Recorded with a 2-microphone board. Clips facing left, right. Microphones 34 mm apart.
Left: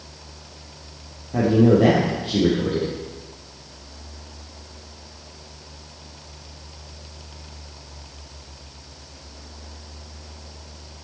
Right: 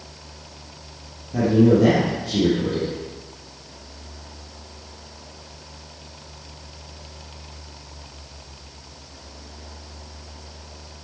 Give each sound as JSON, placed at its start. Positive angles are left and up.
{"t": 1.3, "sound": "a man speaking", "side_deg": 35, "distance_m": 3.5}